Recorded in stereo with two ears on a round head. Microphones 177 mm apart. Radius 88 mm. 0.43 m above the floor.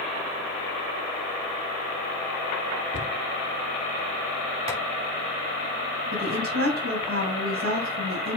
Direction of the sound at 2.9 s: 40° left (ahead or behind).